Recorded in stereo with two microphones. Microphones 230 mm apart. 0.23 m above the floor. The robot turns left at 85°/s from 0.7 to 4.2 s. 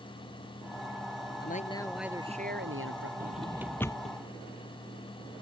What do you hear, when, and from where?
1.4 s a man speaking: 50° left; by 3.1 s 95° right
3.2 s a drawer: 45° right (ahead or behind); by 4.2 s 40° left (ahead or behind)